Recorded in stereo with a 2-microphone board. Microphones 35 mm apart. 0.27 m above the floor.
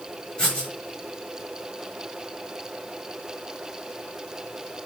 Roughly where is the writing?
Left.